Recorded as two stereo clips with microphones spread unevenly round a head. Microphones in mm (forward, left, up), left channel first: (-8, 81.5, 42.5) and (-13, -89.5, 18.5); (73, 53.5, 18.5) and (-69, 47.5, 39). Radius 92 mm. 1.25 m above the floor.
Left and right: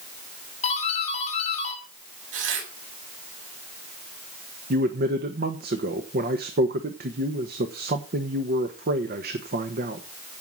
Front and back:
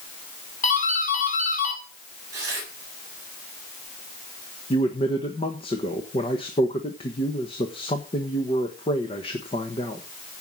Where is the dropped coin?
I don't hear a dropped coin.